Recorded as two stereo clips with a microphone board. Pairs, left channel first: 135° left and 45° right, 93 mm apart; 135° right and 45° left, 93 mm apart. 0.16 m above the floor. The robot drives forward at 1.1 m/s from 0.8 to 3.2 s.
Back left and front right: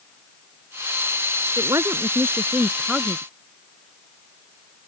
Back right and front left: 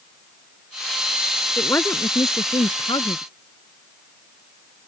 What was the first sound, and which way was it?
A woman speaking, 75° right.